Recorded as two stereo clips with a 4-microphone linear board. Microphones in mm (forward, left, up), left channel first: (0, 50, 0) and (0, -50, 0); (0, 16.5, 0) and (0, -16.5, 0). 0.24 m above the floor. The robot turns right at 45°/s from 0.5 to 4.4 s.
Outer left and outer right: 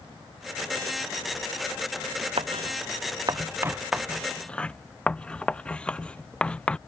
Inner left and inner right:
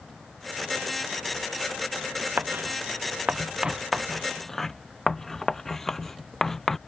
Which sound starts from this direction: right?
Writing, at 2.4 s.